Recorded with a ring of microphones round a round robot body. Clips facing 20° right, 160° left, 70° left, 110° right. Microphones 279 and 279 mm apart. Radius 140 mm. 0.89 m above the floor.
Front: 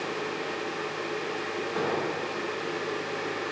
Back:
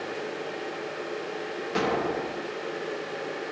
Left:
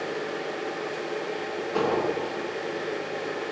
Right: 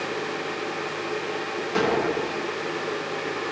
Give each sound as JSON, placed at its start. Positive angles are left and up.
{"t": 1.8, "sound": "an explosion", "azimuth_deg": -165, "distance_m": 0.9}